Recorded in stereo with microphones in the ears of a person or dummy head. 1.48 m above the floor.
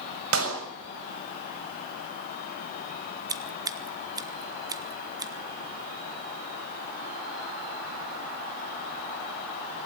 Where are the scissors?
20° right (ahead or behind), 1.2 m.